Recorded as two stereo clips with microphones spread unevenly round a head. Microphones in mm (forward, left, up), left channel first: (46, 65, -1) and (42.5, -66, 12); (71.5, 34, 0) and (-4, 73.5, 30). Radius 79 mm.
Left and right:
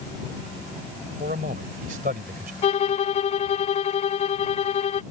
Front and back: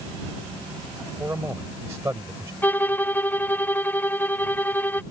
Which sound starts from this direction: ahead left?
A violin, at 2.6 s.